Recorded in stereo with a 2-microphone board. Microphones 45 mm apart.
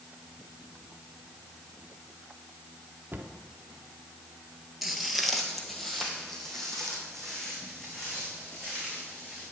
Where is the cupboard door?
45° right (ahead or behind), 1.0 m.